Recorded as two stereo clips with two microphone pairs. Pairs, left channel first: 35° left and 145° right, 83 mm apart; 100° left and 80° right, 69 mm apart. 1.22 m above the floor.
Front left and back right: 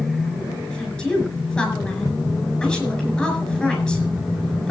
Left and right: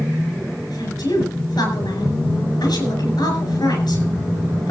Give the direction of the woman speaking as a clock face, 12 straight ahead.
8 o'clock.